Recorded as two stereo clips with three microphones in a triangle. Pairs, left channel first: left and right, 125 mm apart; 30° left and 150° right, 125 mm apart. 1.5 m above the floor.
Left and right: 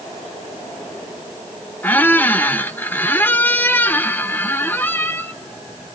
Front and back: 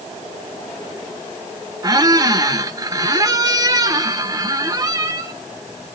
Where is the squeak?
160° left, 0.7 m.